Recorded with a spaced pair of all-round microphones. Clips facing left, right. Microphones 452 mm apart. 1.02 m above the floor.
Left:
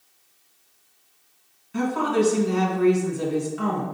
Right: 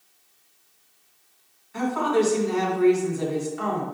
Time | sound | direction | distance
1.7 | a woman speaking | 45° left (ahead or behind) | 1.6 m